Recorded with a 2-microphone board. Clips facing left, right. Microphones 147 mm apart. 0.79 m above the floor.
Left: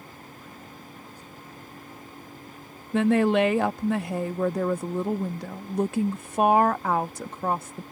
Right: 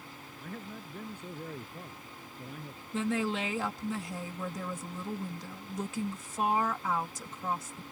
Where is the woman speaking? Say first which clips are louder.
Left 11 dB; 65° left (ahead or behind).